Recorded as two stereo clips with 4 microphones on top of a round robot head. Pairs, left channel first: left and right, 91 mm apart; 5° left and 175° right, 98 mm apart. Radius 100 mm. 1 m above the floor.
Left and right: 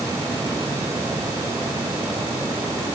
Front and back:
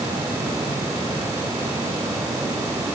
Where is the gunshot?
I don't hear a gunshot.